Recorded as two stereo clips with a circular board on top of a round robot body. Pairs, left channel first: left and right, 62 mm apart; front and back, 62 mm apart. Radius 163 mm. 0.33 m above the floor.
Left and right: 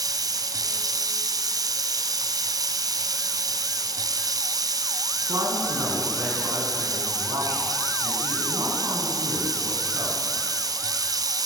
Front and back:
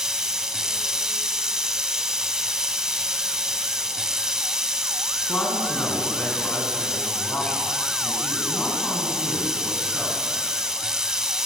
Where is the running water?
100° right, 0.9 m.